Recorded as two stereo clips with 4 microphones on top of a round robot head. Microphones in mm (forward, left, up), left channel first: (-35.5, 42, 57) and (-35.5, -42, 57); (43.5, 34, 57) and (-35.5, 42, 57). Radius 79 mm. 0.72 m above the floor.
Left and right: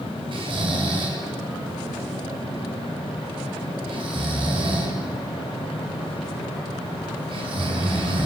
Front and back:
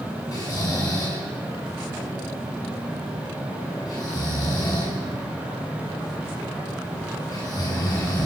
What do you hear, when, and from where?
0.3 s snoring: 55° right, 6 m